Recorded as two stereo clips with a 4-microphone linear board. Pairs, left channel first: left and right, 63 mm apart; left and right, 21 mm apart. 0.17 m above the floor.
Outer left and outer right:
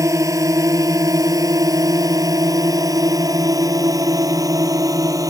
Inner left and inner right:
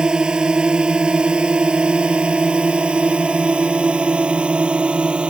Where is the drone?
55° right (ahead or behind); by 5.3 s 65° right (ahead or behind).